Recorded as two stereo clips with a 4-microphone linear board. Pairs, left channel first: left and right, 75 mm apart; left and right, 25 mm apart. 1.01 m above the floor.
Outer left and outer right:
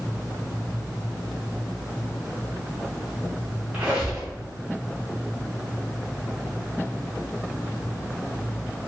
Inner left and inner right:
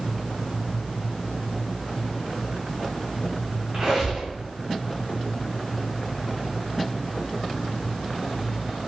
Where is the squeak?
20° right (ahead or behind), 2.0 m.